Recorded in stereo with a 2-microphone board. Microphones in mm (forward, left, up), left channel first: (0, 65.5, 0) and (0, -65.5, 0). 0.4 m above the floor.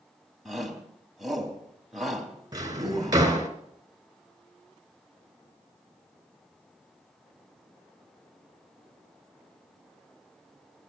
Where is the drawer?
30° right (ahead or behind), 2 m.